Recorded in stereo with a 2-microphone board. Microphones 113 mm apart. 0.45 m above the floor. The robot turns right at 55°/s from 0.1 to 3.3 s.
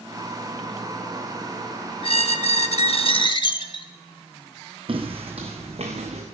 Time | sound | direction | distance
2.0 | a squeak | 65° left | 0.6 m
4.9 | footsteps | 50° right (ahead or behind) | 1.4 m